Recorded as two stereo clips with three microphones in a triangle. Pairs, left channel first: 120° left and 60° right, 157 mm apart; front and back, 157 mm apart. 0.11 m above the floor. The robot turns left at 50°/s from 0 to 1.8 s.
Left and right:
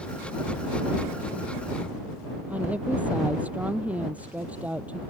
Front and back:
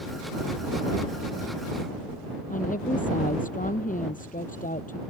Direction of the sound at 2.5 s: 20° left.